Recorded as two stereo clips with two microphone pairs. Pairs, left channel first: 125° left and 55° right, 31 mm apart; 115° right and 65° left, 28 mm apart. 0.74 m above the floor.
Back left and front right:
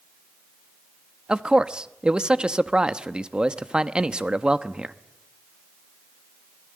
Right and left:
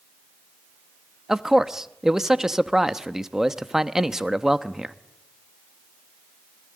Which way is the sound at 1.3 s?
5° right.